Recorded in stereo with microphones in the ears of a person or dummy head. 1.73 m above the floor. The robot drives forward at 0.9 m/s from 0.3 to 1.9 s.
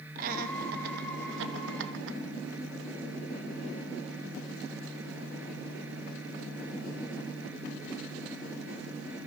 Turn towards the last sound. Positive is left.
turn(degrees=-80)